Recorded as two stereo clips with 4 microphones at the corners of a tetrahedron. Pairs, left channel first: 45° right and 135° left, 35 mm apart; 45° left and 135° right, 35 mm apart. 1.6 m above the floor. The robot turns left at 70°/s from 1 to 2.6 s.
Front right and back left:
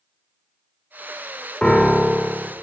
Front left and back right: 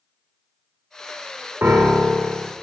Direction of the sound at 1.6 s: 120° right.